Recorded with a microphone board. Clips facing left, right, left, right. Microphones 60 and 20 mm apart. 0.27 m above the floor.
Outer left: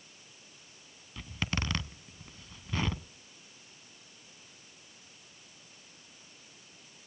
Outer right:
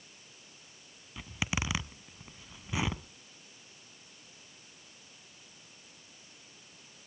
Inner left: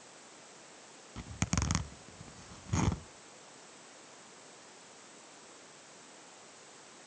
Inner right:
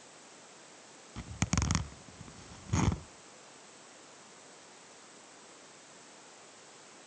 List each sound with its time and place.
1.2 s a zipper: 10° right (ahead or behind), 0.5 m